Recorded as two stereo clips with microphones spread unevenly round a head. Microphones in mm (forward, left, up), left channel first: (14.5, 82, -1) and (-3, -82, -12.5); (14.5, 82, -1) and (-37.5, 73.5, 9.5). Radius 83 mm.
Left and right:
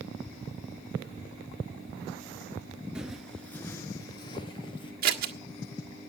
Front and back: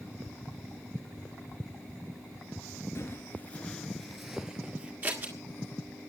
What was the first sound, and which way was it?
Footsteps, 10° right.